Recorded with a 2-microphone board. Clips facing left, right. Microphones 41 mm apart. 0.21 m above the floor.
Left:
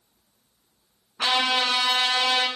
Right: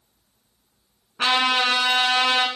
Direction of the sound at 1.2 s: 50° right (ahead or behind).